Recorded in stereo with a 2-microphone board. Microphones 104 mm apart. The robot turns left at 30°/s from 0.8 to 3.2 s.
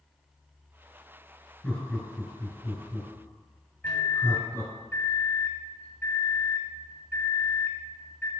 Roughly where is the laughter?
Centre.